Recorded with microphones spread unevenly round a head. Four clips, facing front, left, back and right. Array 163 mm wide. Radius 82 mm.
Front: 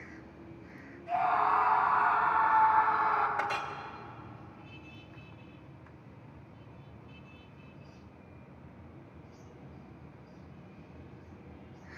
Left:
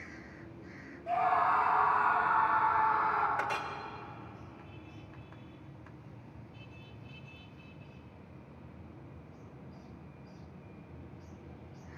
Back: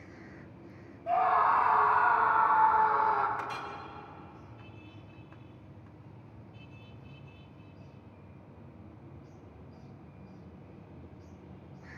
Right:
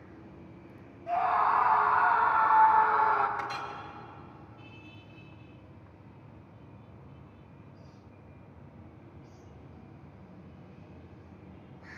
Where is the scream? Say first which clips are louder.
Right 2 dB, back 2 dB; 175° left, 5 m; by 3.3 s 140° right, 4 m.